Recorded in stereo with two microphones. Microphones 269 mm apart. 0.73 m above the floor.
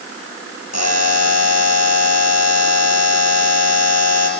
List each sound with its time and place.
0.7 s a buzzer: 70° left (ahead or behind), 2.5 m